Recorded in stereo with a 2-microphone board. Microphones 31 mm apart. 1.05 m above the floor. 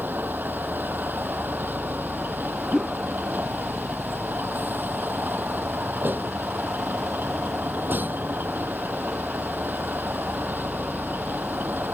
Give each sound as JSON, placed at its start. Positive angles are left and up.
{"t": 0.0, "sound": "a vehicle", "side_deg": -80}
{"t": 2.7, "sound": "a whoosh", "side_deg": -15}